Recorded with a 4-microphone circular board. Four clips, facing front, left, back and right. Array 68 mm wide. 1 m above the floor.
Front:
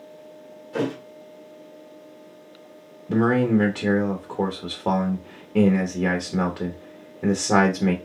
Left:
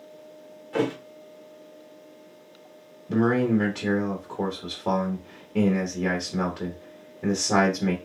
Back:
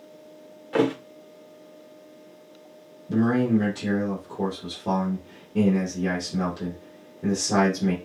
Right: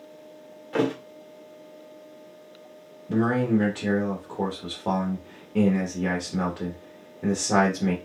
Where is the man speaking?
10° right, 0.9 m.